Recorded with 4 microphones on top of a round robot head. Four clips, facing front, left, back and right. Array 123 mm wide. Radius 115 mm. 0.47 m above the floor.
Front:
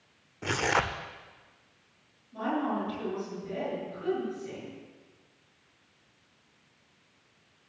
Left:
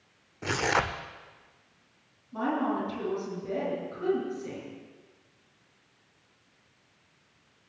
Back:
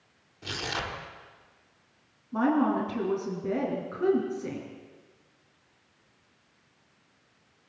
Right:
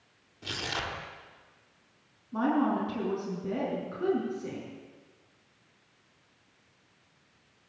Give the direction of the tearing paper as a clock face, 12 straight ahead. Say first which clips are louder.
Left 9 dB, front 7 dB; 10 o'clock.